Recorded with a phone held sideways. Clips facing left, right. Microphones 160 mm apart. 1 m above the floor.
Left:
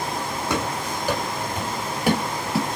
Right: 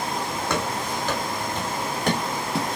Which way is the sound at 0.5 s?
10° left (ahead or behind).